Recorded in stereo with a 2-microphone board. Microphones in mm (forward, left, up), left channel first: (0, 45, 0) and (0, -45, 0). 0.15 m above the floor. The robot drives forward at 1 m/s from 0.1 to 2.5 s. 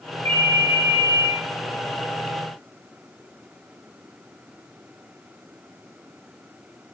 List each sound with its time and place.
0.2 s a ringtone: 75° right (ahead or behind), 3.5 m; by 1.3 s 70° right (ahead or behind), 4 m